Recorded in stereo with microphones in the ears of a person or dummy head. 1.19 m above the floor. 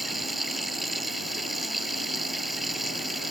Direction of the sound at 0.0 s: 5° right (ahead or behind).